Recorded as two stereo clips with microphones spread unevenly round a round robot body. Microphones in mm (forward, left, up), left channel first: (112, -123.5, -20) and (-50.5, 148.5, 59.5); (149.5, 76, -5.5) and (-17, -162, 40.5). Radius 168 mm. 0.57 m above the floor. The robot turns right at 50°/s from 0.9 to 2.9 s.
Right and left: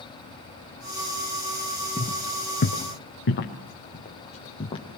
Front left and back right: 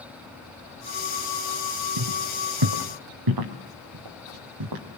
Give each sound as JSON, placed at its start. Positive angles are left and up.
{"t": 2.0, "sound": "footsteps", "azimuth_deg": -140, "distance_m": 3.0}